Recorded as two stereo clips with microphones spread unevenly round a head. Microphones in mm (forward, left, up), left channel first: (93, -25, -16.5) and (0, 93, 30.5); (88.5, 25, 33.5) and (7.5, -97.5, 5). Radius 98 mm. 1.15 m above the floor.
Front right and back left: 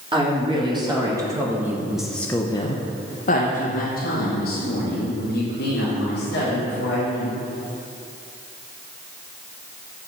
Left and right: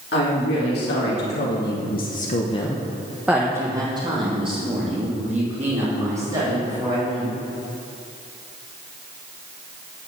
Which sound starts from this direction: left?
A woman speaking, at 0.1 s.